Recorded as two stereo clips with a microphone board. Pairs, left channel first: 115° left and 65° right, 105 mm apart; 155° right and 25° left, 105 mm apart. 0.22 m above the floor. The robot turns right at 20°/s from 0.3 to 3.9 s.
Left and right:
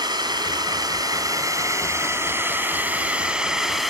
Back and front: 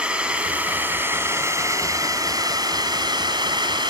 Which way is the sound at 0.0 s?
50° right.